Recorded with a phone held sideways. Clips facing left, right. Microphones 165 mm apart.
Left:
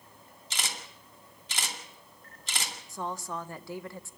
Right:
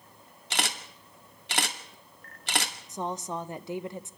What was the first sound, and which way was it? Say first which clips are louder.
A camera shutter: right 6 dB; 70° right (ahead or behind).